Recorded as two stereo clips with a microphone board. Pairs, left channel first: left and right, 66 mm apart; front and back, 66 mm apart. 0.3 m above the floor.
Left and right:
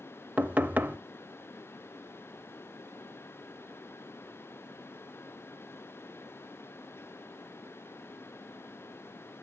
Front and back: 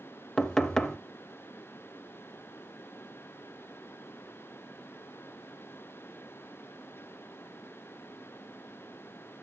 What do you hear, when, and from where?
0.4 s knocking: 70° right, 0.6 m